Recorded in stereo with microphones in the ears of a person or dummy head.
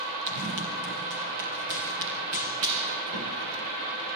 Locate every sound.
0.3 s running footsteps: 60° right (ahead or behind), 4 m; by 3.6 s 75° right (ahead or behind), 7 m